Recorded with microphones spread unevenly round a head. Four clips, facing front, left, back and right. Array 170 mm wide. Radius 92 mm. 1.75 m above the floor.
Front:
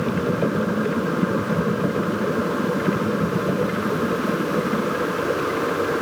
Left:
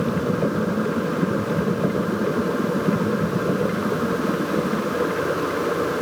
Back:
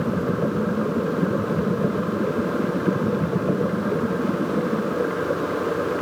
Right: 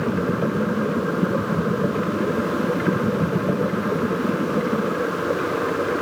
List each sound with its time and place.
Only background noise.